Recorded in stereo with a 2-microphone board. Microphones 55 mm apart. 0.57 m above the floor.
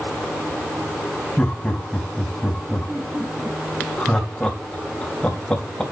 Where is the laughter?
15° left (ahead or behind), 3 m.